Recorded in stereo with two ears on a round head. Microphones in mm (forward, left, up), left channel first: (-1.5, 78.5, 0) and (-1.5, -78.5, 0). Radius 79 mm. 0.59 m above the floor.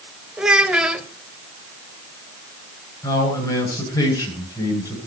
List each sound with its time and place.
0.4 s a child speaking: 5° right (ahead or behind), 1.3 m
3.0 s a man speaking: 20° left (ahead or behind), 9 m